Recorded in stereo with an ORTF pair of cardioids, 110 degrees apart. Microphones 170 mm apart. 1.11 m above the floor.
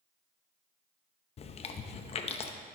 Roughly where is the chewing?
Ahead left.